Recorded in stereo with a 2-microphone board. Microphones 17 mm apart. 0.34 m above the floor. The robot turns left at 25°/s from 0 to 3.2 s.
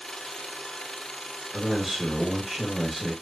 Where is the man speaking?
175° right, 1.1 m; by 3.1 s 145° left, 1.1 m.